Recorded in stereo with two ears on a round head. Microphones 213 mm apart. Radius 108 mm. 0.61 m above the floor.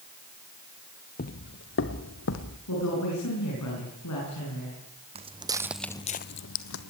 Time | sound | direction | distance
1.2 | footsteps | 40° left (ahead or behind) | 0.8 m
2.7 | a woman speaking | 75° left (ahead or behind) | 8 m
5.2 | footsteps | 25° right (ahead or behind) | 1.6 m